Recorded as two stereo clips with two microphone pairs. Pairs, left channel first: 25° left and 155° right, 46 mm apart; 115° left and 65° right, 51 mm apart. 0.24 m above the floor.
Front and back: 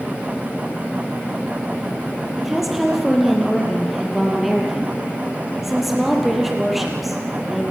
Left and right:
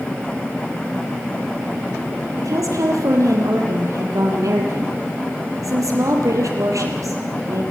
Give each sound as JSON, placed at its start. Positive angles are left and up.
{"t": 2.4, "sound": "a woman speaking", "azimuth_deg": -65, "distance_m": 5.5}